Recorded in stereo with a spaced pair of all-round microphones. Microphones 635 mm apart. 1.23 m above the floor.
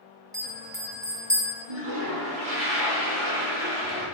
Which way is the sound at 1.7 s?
45° right (ahead or behind).